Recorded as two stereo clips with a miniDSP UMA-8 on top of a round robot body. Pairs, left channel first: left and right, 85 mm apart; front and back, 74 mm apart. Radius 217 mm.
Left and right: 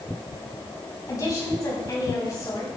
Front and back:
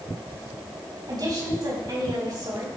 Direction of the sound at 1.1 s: 140° left.